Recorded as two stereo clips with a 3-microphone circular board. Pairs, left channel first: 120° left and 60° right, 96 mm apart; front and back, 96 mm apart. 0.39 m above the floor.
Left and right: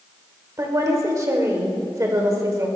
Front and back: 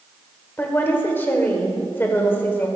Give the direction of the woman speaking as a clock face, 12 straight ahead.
2 o'clock.